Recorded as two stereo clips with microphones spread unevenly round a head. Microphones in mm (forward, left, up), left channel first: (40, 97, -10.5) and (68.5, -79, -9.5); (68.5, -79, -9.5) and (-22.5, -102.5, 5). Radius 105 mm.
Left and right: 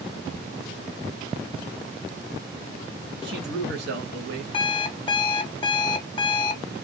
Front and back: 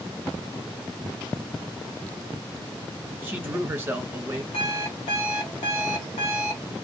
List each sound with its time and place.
3.2 s a man speaking: 95° right, 1.5 m
4.5 s an alarm clock: 40° left, 0.7 m